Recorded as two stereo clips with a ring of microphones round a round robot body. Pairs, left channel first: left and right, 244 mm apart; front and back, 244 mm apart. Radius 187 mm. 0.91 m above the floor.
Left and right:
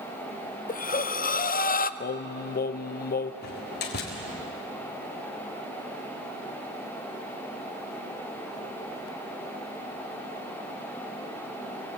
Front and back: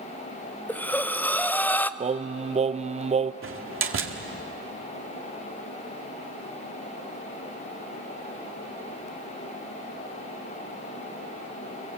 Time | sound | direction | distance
0.7 | breathing | 80° left | 0.8 m
2.0 | singing | 120° left | 0.5 m
3.4 | a door slam | 145° left | 1.9 m